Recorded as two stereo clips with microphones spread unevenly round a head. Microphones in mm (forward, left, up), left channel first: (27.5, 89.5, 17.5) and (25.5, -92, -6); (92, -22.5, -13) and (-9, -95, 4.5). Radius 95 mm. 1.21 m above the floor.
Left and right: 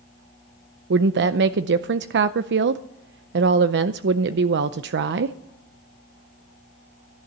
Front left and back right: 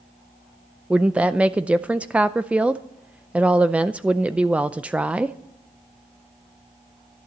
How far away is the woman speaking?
About 0.5 m.